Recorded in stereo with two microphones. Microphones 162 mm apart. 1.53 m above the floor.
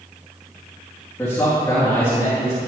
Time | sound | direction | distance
1.2 | a man speaking | 20° left (ahead or behind) | 2 m